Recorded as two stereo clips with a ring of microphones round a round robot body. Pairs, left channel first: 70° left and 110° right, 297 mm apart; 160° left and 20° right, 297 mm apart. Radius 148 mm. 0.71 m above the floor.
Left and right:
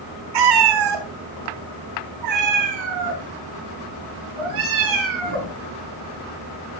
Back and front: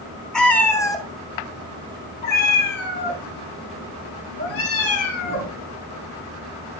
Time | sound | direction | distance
0.3 | a cat meowing | 115° right | 2.5 m